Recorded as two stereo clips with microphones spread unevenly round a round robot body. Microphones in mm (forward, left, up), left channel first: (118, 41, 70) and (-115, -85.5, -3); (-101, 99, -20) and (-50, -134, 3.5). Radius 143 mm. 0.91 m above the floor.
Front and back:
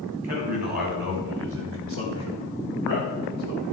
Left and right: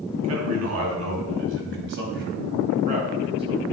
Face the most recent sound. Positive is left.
turn(degrees=-150)